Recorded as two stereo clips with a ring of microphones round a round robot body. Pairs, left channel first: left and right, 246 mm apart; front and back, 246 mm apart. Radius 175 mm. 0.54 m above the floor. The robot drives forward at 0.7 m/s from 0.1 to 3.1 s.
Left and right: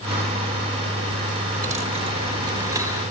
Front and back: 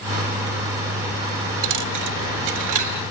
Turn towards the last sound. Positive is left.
turn(degrees=-170)